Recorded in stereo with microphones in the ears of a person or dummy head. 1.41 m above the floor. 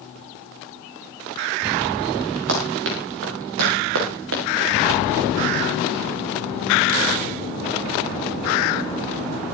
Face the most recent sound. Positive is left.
turn(degrees=-75)  # may be behind; listen again after turning